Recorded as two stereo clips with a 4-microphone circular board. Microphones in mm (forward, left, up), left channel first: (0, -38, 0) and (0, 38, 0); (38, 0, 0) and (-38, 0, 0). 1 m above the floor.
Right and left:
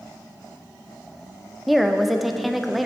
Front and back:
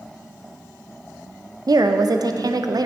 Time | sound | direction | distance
1.7 | a woman speaking | straight behind | 0.6 m